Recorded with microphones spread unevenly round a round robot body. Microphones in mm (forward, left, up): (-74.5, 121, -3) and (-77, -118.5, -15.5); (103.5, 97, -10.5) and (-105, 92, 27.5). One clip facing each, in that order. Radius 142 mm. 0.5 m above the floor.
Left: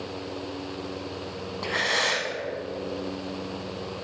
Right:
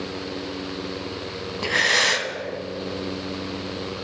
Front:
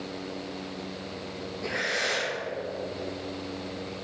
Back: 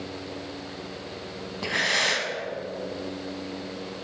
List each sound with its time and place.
1.6 s breathing: 145° right, 1.1 m